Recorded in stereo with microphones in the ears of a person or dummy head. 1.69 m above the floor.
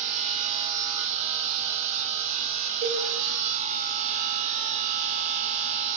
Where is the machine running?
40° right (ahead or behind), 1.0 m.